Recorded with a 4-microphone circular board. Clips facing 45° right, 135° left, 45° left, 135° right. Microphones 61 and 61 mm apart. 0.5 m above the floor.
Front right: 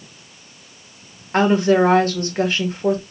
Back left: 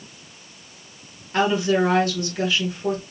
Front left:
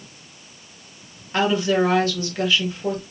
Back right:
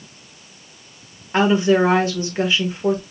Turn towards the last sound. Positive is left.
turn(degrees=-75)